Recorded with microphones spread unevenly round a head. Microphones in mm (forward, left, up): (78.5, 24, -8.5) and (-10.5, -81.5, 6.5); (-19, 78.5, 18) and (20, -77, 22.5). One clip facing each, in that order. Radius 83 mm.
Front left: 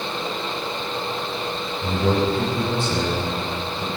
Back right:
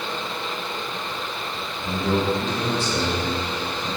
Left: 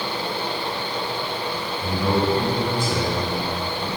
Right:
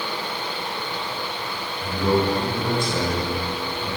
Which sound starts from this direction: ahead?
A man speaking, at 1.8 s.